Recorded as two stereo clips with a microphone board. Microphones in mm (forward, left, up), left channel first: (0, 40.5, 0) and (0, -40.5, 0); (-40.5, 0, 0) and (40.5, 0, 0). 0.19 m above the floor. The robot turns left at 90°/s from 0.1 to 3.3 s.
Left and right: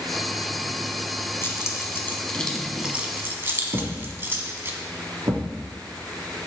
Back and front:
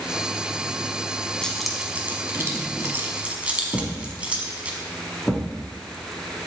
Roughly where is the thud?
Right.